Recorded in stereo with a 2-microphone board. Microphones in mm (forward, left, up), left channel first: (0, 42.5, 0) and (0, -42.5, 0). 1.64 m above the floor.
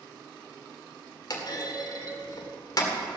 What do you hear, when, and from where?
1.3 s a clunk: 50° left (ahead or behind), 2 m